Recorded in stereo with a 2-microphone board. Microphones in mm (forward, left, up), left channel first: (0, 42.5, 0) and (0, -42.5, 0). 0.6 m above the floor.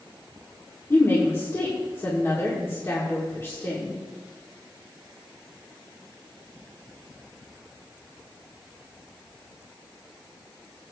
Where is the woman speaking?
30° left (ahead or behind), 1.8 m.